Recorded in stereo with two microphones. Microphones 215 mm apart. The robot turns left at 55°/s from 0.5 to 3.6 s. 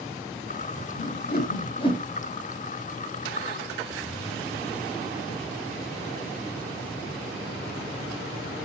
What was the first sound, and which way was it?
A whoosh, 60° left (ahead or behind).